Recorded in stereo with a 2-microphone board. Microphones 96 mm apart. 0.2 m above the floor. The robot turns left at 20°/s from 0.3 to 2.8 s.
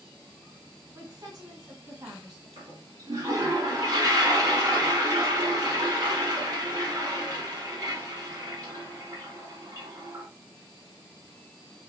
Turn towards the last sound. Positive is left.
turn(degrees=-40)  # may be behind; listen again after turning